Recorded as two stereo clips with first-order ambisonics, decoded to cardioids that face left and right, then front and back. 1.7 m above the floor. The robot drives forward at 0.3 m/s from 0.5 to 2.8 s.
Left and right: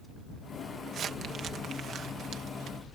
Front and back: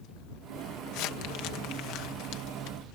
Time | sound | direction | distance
0.9 | crumpling | 30° right | ?